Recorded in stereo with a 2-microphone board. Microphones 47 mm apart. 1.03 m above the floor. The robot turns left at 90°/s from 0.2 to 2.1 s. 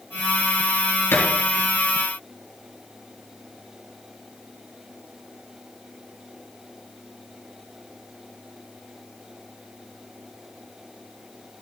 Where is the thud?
55° left (ahead or behind), 4.5 m; by 1.3 s 40° left (ahead or behind), 4.5 m.